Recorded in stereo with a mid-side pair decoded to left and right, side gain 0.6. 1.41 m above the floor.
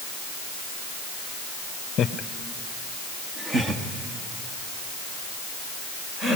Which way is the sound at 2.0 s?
50° left.